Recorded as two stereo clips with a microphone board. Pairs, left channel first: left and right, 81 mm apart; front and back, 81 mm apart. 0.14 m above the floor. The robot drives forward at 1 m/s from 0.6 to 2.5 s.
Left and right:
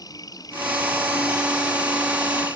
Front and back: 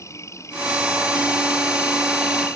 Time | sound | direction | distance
0.0 | an insect | 50° left | ?